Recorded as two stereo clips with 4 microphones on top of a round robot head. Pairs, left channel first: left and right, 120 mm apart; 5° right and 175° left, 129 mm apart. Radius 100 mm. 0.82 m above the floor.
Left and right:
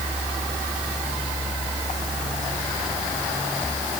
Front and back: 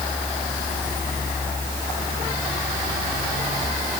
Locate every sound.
Only background noise.